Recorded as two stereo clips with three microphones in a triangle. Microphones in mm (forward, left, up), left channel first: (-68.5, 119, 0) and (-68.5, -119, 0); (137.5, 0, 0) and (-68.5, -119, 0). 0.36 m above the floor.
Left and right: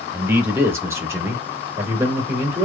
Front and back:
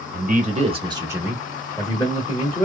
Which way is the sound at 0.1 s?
170° right.